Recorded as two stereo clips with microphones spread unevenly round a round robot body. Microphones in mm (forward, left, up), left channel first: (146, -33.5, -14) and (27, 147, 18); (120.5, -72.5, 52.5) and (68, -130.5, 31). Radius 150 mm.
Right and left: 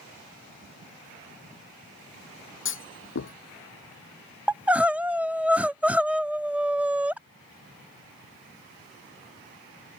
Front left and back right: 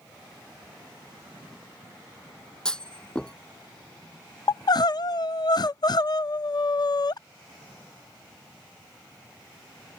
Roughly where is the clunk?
Ahead right.